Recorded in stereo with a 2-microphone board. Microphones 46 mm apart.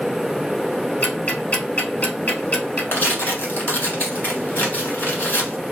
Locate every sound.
1.0 s ticking: 40° left (ahead or behind), 1.6 m
2.9 s tearing paper: 45° left (ahead or behind), 1.4 m